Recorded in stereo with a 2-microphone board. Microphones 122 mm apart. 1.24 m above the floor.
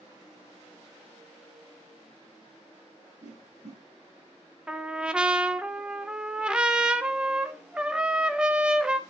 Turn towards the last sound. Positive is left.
turn(degrees=-5)  # may be behind; listen again after turning